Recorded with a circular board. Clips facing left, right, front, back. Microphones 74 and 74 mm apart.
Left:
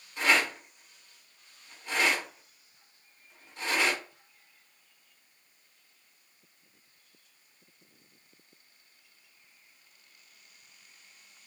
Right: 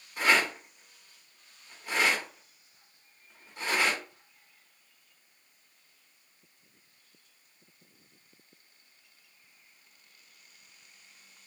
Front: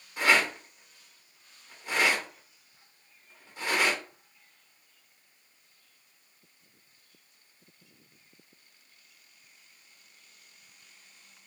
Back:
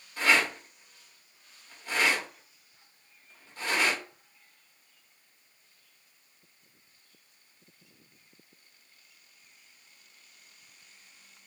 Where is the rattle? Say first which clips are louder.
Right 1 dB, front 1 dB; 30° right, 1.2 m.